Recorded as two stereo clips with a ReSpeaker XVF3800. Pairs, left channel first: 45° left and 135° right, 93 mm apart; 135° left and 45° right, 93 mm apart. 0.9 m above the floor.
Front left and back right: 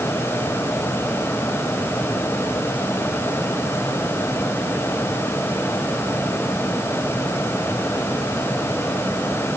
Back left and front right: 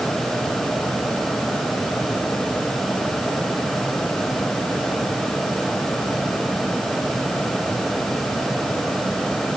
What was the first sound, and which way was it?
Only background noise.